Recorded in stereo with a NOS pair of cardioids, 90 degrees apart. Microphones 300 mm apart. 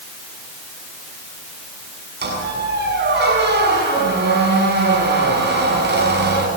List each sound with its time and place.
2.2 s a squeak: 40° right, 6.5 m